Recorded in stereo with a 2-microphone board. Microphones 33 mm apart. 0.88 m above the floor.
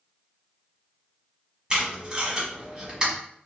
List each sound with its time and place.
1.7 s tape being pulled: 20° right (ahead or behind), 1.2 m